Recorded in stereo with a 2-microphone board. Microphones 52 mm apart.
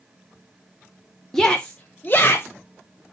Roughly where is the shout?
Centre.